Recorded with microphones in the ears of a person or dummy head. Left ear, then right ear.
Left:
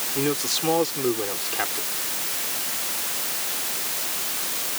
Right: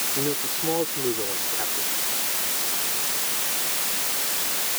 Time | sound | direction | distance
0.1 | a man speaking | 60° left (ahead or behind) | ?